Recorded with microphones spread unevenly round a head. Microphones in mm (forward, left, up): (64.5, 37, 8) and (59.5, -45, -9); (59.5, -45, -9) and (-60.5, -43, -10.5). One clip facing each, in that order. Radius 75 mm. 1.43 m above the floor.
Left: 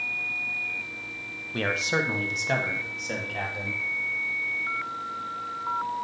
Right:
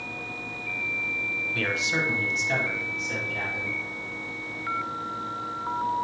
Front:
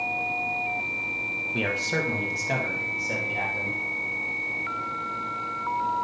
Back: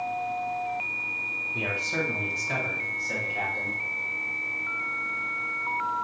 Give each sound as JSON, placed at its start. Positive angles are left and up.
{"t": 1.5, "sound": "a man speaking", "azimuth_deg": 35, "distance_m": 1.2}